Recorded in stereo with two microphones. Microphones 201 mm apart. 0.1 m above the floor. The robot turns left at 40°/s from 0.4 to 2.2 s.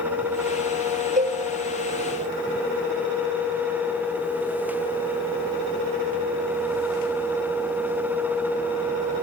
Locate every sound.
1.2 s a cowbell: 40° right (ahead or behind), 2.5 m; by 1.4 s 30° right (ahead or behind), 2.5 m